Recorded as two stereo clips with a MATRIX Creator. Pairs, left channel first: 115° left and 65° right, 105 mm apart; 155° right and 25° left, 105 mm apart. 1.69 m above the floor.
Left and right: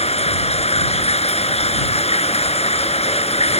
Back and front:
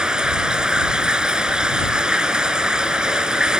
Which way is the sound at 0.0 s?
105° left.